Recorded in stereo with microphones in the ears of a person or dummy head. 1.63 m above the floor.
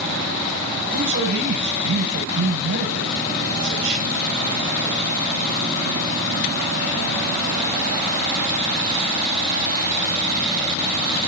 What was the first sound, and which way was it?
A man speaking, 60° right (ahead or behind).